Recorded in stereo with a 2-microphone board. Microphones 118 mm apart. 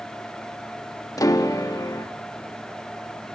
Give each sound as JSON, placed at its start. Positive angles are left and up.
{"t": 1.2, "sound": "a piano", "side_deg": 30, "distance_m": 1.0}